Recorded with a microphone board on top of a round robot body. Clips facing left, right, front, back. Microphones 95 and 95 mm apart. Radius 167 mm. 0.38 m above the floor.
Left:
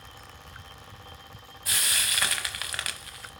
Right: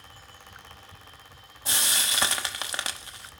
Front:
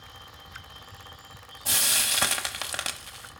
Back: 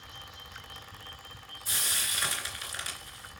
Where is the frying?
25° right, 1.0 m.